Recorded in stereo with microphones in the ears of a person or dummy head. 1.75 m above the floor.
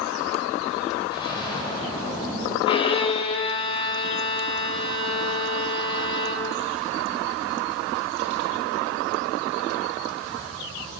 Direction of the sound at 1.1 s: 25° left (ahead or behind).